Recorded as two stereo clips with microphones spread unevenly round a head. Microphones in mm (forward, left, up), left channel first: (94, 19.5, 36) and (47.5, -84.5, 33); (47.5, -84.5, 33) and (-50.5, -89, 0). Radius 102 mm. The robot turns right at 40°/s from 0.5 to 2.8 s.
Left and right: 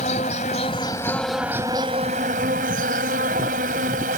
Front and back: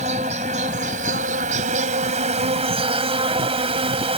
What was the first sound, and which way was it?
An insect, 125° left.